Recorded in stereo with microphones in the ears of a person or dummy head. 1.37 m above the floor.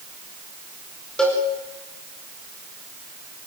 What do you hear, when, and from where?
1.2 s a cowbell: 5° left (ahead or behind), 4.5 m